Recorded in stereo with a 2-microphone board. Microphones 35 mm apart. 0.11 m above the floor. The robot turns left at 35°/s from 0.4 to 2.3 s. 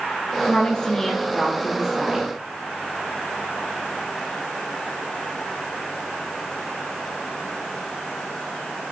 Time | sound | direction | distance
0.4 | a woman speaking | 35° left | 2.5 m